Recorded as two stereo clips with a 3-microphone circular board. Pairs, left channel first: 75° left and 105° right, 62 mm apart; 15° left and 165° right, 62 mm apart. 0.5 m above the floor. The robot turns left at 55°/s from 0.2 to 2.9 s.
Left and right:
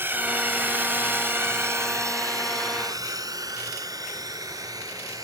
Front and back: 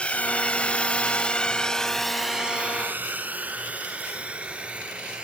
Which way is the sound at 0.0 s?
55° right.